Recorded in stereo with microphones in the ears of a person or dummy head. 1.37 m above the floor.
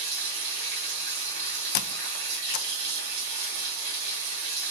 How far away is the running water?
About 2 m.